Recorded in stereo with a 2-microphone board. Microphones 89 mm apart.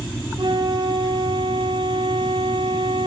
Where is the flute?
60° right (ahead or behind), 1.8 m.